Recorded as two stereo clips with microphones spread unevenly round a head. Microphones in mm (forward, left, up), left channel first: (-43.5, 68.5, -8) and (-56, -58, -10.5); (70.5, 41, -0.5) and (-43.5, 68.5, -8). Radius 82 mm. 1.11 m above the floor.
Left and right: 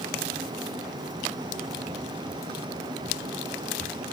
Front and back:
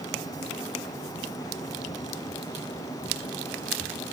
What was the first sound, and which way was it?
Only background noise.